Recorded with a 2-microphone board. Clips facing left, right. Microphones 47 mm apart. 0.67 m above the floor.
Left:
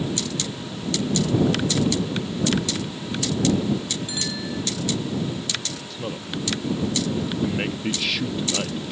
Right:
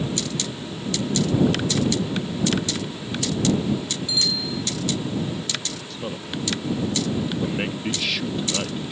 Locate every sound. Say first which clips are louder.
4.1 s a bicycle bell: right 2 dB; 45° left (ahead or behind)
5.9 s a man speaking: even; centre (ahead or behind)